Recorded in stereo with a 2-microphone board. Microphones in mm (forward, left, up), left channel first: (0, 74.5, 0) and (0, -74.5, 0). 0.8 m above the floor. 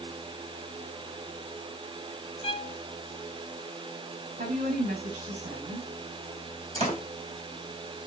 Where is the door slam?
45° right (ahead or behind), 3.5 m.